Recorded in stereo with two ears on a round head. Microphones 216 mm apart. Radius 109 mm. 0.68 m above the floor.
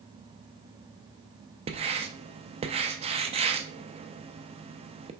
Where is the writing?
25° right (ahead or behind), 0.6 m.